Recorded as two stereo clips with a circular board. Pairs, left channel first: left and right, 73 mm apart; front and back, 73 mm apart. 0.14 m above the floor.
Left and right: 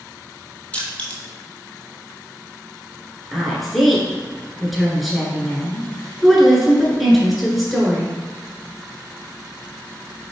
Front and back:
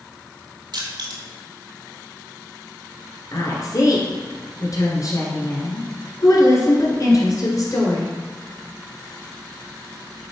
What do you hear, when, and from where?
0.7 s crushing: 160° left, 1.5 m
3.3 s a woman speaking: straight ahead, 1.7 m